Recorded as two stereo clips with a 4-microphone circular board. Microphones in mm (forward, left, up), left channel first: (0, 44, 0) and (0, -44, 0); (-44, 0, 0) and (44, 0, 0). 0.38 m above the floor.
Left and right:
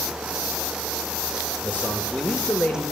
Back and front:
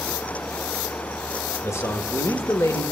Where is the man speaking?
150° left, 1.3 m.